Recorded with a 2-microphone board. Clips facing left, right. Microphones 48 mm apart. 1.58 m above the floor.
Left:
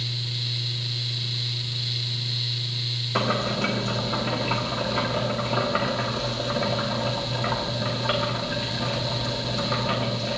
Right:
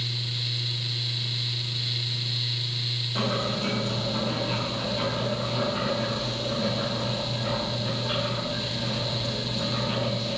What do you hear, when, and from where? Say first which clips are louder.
3.1 s boiling: left 4 dB; 75° left (ahead or behind), 2.5 m